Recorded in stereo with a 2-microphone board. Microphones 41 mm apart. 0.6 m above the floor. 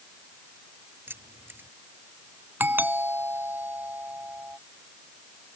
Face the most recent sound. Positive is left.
turn(degrees=-65)  # may be behind; listen again after turning